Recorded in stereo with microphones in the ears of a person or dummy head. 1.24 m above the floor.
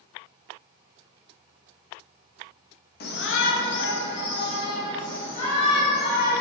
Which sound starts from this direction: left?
A shout, at 3.0 s.